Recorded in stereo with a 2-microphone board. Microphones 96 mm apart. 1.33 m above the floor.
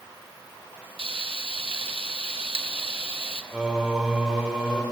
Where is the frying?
85° right, 1.6 m.